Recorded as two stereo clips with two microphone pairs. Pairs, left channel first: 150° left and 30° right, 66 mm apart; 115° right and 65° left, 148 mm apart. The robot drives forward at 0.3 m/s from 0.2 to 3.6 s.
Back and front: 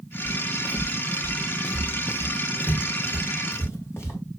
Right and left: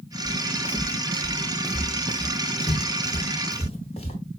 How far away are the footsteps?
About 2.5 m.